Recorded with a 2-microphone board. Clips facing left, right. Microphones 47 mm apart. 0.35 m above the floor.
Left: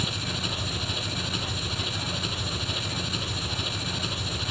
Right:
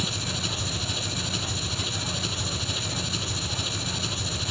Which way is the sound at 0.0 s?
10° left (ahead or behind).